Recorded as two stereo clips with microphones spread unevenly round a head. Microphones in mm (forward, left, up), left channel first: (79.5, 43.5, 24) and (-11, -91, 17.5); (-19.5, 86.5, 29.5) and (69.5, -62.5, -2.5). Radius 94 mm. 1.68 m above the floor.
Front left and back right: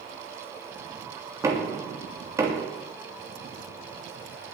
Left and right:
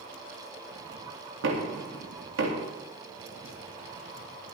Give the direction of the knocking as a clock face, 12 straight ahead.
2 o'clock.